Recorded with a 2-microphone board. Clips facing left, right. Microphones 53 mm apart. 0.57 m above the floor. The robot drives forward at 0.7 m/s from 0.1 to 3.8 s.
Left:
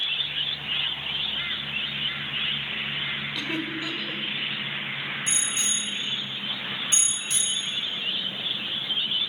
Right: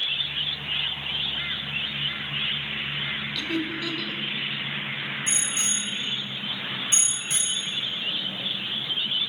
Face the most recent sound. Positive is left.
turn(degrees=-20)  # may be behind; listen again after turning